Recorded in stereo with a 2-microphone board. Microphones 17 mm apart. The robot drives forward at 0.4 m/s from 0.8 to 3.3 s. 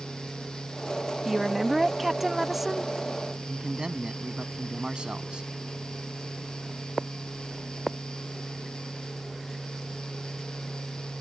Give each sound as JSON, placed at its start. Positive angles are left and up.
{"t": 1.2, "sound": "a woman speaking", "side_deg": -5}
{"t": 3.5, "sound": "a man speaking", "side_deg": -75}